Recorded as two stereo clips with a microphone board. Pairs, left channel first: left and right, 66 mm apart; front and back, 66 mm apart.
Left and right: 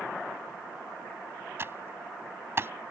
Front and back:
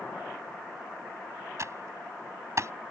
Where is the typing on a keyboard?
140° right.